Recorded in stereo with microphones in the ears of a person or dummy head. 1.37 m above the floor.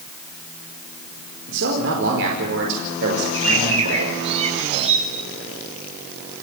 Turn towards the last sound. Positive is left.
turn(degrees=-35)  # may be behind; listen again after turning